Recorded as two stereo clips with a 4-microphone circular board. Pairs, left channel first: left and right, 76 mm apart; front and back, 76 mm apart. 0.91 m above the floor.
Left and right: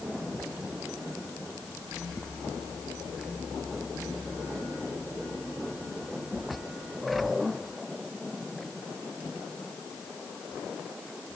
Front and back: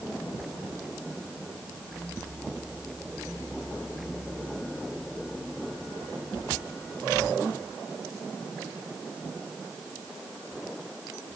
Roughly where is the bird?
No bird in this recording.